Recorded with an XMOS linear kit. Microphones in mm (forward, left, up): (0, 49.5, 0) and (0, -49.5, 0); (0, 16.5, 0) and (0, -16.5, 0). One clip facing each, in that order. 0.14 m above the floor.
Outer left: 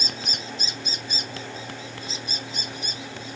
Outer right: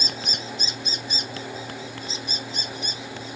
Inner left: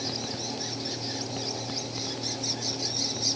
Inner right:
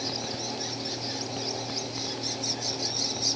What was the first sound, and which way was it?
Only background noise.